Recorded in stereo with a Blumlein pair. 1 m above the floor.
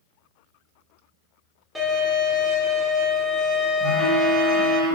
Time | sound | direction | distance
1.8 | a violin | 5° right | 1.4 m
3.8 | a phone buzzing | 10° left | 1.4 m